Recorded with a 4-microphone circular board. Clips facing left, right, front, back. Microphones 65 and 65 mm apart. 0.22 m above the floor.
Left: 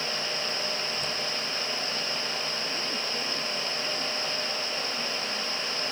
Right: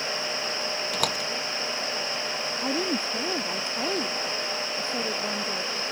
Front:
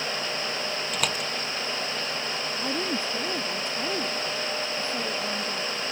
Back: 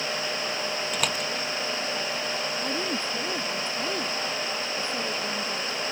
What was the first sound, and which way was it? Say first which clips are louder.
A door slam: right 5 dB, even; 90° right.